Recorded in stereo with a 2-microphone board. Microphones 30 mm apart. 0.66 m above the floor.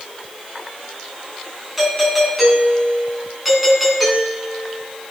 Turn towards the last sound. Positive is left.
turn(degrees=-5)  # may be behind; listen again after turning